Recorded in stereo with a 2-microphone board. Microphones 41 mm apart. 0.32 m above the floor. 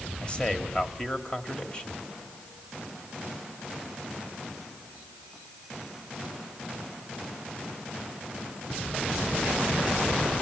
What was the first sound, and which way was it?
A man speaking, 25° left (ahead or behind).